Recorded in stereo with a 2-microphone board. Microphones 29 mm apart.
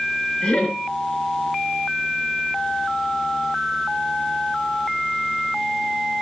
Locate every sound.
0.4 s laughter: 30° left (ahead or behind), 4.5 m